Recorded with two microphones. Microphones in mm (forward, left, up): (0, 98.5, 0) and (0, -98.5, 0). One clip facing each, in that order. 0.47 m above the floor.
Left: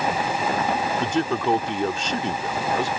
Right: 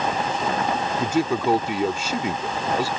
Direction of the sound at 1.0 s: 10° right (ahead or behind).